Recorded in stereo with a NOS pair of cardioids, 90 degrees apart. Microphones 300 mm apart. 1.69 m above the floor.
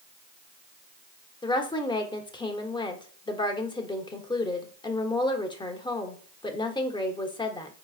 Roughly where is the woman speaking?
Ahead.